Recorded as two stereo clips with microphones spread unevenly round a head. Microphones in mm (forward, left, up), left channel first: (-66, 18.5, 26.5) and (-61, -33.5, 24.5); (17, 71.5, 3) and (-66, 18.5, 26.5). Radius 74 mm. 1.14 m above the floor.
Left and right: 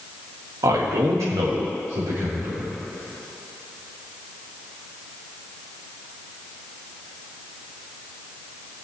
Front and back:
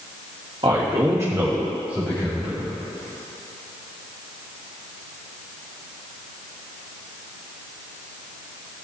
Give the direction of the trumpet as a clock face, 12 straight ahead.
No trumpet in this recording.